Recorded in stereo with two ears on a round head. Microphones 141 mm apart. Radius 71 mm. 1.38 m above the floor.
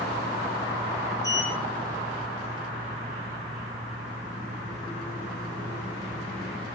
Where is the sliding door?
20° left (ahead or behind), 1.7 m.